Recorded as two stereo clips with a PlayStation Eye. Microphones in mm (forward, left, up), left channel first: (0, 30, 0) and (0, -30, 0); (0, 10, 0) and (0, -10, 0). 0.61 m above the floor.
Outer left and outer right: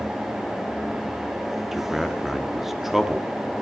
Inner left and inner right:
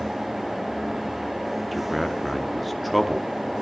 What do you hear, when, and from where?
1.7 s a man speaking: 5° right (ahead or behind), 0.9 m